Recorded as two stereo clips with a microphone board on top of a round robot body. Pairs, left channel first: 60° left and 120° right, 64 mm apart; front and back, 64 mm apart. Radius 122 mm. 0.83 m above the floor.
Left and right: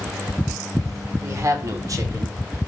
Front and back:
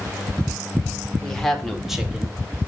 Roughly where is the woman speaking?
Right.